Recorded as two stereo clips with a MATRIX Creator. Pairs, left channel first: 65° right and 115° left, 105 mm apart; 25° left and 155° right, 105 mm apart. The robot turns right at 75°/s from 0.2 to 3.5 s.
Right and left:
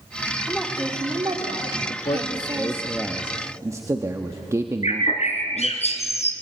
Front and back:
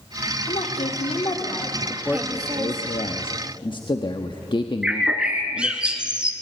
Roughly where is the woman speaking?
Ahead.